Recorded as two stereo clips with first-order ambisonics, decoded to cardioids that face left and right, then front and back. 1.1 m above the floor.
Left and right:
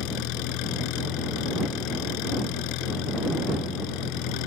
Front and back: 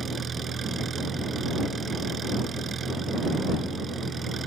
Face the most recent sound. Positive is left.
turn(degrees=110)